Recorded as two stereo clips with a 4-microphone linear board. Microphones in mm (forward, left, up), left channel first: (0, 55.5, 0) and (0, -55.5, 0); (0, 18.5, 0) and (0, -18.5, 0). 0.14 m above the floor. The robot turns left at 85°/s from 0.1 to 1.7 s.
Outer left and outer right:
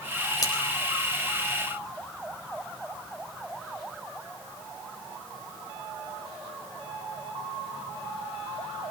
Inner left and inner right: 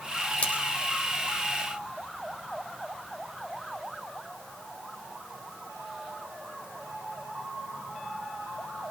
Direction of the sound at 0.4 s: 40° left (ahead or behind).